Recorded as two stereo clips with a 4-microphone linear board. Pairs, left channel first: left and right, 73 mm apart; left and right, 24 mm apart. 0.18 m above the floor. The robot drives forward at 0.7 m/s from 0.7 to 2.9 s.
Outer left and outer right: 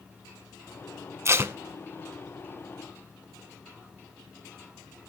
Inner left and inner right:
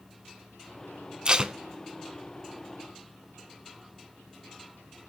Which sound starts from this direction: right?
Tape being pulled, at 1.2 s.